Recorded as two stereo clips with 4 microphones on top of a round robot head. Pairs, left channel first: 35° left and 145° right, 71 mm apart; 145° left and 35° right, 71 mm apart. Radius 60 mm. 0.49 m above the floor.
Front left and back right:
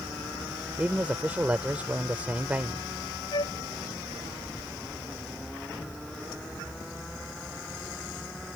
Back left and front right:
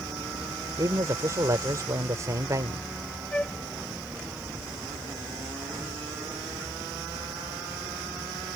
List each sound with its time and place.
0.8 s a man speaking: 75° right
3.3 s a flute: 65° left